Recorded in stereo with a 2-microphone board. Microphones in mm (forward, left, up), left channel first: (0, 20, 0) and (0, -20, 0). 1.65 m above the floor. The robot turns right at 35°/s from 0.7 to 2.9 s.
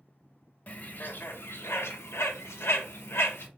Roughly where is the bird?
Left.